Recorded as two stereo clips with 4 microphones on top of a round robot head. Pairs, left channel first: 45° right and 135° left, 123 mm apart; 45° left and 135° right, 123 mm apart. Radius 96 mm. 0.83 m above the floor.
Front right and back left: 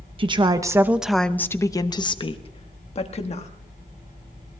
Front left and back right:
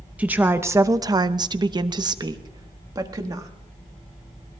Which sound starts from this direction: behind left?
A woman speaking, at 0.2 s.